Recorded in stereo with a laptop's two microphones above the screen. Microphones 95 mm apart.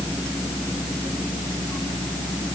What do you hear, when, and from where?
Only background noise.